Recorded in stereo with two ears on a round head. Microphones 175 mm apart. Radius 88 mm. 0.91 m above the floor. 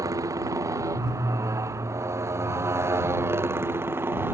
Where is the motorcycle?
15° right (ahead or behind); by 4.3 s 10° right (ahead or behind).